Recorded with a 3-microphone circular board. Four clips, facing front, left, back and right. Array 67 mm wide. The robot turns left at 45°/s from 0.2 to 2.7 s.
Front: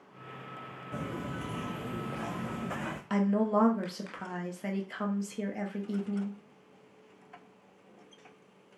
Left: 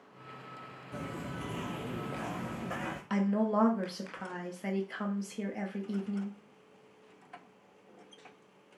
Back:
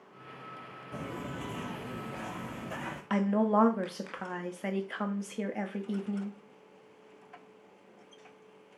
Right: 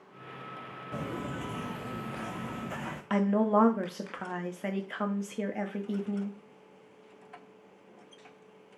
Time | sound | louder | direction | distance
0.9 | footsteps | right 4 dB, front 2 dB | 80° right | 0.9 m
3.1 | a woman speaking | right 4 dB, back 1 dB | 130° right | 0.6 m